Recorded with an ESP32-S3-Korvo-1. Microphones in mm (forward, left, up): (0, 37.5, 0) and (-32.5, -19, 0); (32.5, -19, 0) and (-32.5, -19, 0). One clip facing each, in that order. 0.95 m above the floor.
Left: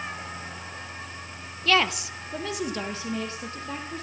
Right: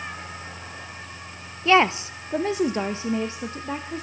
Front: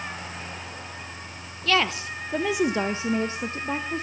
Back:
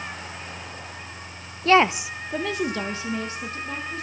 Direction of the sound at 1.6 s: 175° right.